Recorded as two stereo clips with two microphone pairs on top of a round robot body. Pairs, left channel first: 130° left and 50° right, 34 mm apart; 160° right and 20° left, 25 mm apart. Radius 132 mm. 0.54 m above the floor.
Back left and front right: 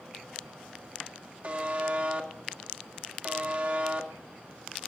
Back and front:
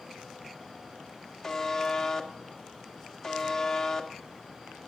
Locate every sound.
1.4 s a buzzer: 90° right, 1.9 m